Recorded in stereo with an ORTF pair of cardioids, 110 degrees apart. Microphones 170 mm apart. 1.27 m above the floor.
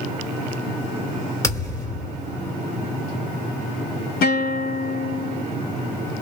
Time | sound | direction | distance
1.4 | a thud | 15° left | 2.5 m
4.2 | a guitar | 65° left | 1.9 m